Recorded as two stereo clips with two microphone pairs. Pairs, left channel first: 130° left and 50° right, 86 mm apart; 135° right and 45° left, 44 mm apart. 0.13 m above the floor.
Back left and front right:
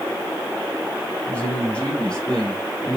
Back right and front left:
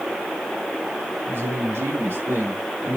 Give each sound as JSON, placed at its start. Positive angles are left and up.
{"t": 1.3, "sound": "a man speaking", "azimuth_deg": 55, "distance_m": 5.0}